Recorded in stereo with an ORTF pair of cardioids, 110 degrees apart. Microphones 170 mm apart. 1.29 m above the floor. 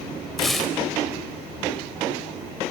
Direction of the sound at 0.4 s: Straight ahead.